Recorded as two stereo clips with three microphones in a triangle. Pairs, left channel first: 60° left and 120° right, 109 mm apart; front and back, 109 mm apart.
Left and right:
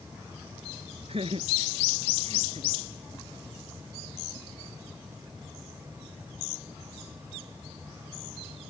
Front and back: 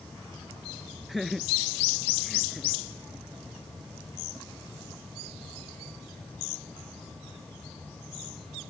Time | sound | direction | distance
1.1 | laughter | 90° right | ?